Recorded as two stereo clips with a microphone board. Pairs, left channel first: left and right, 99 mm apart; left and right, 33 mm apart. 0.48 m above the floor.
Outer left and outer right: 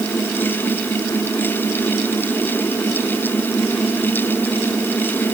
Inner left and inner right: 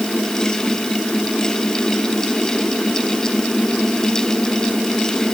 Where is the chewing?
I don't hear chewing.